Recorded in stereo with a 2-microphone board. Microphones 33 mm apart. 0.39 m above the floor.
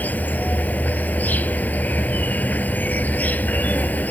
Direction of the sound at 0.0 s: 65° left (ahead or behind).